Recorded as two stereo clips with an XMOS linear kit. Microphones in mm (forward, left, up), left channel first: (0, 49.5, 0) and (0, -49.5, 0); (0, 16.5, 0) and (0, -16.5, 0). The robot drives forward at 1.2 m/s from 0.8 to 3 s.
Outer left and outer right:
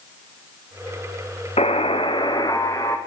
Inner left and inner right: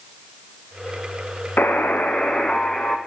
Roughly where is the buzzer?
Left.